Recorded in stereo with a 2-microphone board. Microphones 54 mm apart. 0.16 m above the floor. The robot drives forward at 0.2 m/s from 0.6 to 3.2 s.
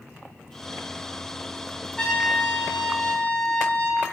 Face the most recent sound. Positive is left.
turn(degrees=20)  # may be behind; listen again after turning